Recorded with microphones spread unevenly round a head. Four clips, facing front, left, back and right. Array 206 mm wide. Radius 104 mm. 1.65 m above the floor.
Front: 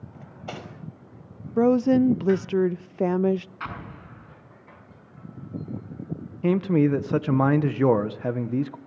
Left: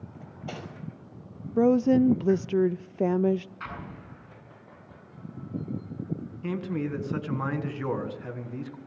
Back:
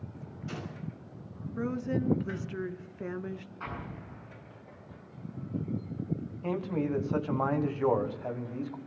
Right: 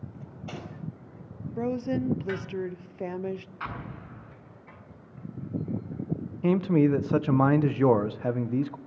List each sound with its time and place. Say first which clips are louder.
0.1 s cutlery clinking: left 3 dB, front 4 dB; 25° left, 5.5 m
1.6 s a woman speaking: left 9 dB, front 14 dB; 35° left, 0.6 m
3.6 s an explosion: right 2 dB, front 4 dB; 20° right, 7 m
6.4 s a man speaking: right 9 dB, front 11 dB; 30° right, 1.5 m